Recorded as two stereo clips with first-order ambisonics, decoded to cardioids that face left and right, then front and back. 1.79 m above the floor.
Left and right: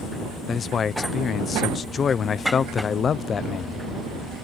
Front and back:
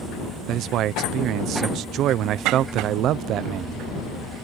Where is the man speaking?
150° left.